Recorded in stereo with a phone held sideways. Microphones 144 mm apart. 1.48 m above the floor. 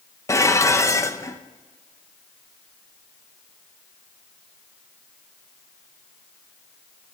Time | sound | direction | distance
0.3 | dishes clattering | 20° left (ahead or behind) | 0.7 m